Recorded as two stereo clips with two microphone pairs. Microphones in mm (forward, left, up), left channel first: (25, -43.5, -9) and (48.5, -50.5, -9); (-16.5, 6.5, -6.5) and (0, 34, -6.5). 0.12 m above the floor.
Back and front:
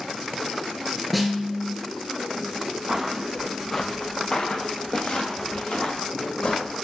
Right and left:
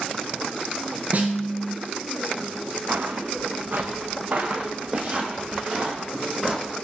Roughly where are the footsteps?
Ahead left.